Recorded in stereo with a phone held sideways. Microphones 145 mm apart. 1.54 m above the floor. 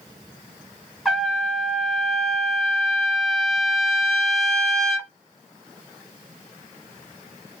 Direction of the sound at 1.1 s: Centre (ahead or behind).